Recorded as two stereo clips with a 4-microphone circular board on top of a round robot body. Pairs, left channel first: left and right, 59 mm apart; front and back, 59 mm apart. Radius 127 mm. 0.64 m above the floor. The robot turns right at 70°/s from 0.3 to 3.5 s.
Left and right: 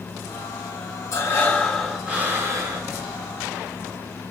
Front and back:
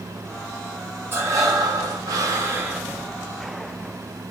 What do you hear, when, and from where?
1.1 s breathing: 130° left, 0.7 m; by 2.9 s 110° right, 0.7 m